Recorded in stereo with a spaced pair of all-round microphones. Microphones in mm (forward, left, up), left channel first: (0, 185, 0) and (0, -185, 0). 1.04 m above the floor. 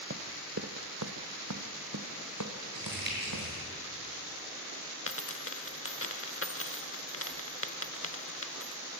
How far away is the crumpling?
About 7.5 m.